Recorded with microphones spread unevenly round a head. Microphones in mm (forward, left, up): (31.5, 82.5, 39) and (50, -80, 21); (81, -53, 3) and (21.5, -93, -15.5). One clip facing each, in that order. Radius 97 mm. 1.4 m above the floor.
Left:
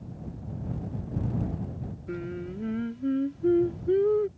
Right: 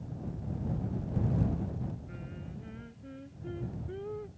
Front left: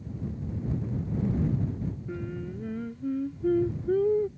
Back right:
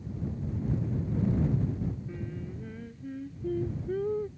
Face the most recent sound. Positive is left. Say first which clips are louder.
# left 11 dB, front left 4 dB
turn(degrees=85)